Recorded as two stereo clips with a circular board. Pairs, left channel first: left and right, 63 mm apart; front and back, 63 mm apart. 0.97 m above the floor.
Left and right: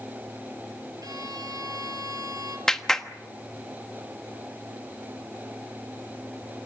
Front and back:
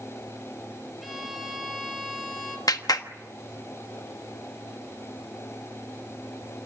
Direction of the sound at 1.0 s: 90° right.